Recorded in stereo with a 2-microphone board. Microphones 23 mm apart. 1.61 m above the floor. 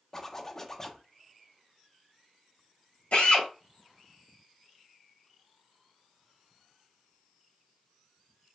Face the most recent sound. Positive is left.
turn(degrees=70)  # may be behind; listen again after turning